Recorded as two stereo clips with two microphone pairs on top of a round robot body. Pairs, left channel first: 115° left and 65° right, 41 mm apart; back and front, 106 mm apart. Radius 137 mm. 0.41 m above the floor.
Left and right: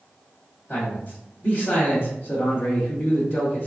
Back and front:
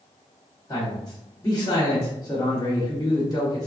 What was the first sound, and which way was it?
A man speaking, 125° left.